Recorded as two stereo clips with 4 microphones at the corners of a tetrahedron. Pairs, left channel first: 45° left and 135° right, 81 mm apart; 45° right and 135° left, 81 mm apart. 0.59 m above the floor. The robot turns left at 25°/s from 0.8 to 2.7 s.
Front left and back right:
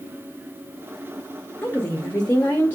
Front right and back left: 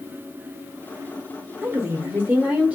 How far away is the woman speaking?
About 0.8 m.